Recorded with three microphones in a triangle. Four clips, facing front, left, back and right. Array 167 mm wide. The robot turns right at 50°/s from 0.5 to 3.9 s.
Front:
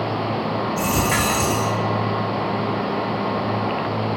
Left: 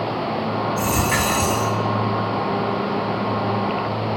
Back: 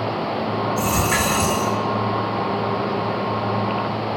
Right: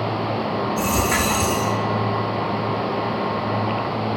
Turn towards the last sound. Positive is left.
turn(degrees=170)